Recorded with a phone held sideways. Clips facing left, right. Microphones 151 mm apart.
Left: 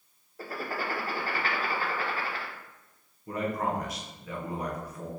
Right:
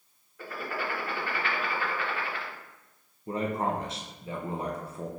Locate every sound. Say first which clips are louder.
0.4 s writing: left 1 dB; 35° left (ahead or behind), 0.7 m
3.3 s a man speaking: right 1 dB; 25° right (ahead or behind), 0.7 m